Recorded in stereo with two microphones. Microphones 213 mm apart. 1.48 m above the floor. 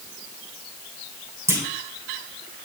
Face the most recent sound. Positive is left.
turn(degrees=-15)  # may be behind; listen again after turning